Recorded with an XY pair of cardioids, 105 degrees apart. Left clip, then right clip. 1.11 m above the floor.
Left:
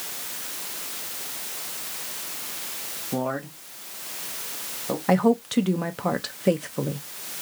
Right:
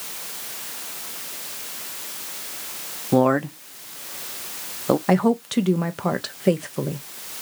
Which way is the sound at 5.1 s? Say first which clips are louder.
Right 1 dB; 10° right.